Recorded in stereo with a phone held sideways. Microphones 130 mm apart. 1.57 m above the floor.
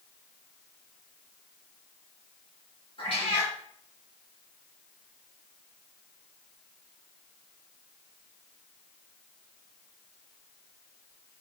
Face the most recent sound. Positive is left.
turn(degrees=45)  # may be behind; listen again after turning